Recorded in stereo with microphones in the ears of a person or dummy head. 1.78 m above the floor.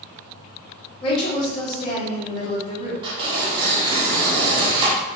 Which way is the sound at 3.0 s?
25° right (ahead or behind).